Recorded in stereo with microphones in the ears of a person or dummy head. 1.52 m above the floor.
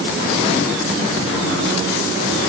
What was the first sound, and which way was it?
Only background noise.